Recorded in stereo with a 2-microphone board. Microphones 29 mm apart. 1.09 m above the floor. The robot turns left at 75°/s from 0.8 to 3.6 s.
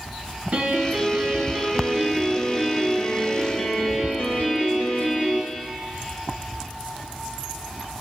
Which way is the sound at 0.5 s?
60° right.